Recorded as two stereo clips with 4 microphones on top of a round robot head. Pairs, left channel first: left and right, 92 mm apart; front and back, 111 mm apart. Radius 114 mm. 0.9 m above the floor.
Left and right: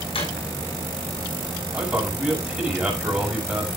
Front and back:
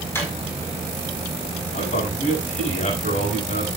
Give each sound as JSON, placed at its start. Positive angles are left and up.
{"t": 0.1, "sound": "a drawer", "azimuth_deg": 70, "distance_m": 5.0}
{"t": 1.7, "sound": "a man speaking", "azimuth_deg": -10, "distance_m": 6.0}